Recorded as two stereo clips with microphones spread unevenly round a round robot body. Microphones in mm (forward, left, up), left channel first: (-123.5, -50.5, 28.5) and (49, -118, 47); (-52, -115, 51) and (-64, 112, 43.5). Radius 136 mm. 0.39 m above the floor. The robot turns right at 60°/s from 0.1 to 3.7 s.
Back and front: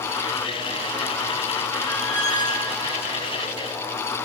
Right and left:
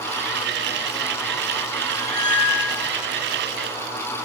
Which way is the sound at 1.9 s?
125° right.